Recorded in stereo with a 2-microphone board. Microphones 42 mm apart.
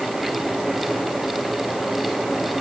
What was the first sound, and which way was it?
Only background noise.